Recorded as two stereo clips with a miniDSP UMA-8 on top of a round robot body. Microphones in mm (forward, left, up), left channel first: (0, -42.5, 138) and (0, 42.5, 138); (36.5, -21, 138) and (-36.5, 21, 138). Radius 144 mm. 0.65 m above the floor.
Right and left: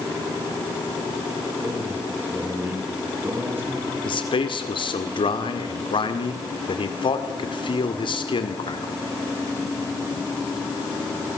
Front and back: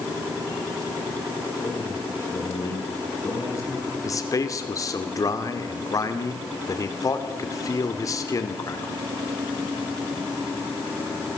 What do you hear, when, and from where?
1.6 s a man speaking: 25° left, 7.5 m
4.0 s a man speaking: 80° right, 2 m